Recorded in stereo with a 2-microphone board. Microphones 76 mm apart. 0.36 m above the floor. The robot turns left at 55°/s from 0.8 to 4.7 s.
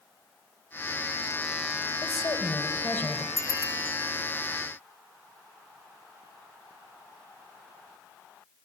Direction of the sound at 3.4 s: 135° left.